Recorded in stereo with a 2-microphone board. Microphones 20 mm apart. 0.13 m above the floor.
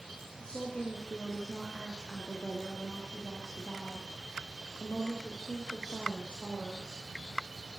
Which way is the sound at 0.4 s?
55° left (ahead or behind).